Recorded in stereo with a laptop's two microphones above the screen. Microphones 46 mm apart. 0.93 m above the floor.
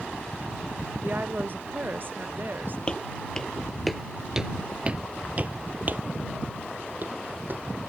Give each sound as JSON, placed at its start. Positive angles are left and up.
{"t": 1.0, "sound": "a woman speaking", "side_deg": -50}
{"t": 2.9, "sound": "footsteps", "side_deg": 25}